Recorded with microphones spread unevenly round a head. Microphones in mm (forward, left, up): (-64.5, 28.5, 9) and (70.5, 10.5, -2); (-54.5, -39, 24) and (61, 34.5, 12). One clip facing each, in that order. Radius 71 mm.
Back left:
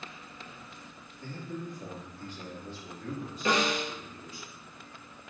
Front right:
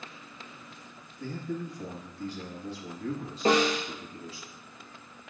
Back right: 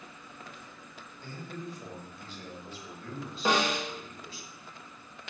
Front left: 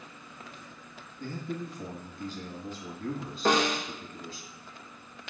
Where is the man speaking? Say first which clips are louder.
Front right 4 dB, front left 5 dB; 10° right, 1.7 m.